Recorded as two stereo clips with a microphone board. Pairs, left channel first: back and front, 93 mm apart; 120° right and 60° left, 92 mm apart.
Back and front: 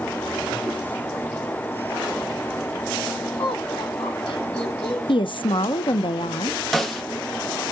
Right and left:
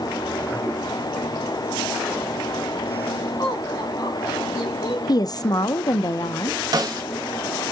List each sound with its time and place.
3.4 s laughter: 165° right, 7 m
5.1 s a woman speaking: 160° right, 0.5 m
6.7 s a snare drum: 95° left, 0.9 m